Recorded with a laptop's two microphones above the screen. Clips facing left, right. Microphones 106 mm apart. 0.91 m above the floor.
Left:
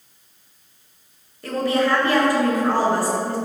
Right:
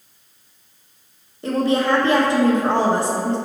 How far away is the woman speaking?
About 1.1 m.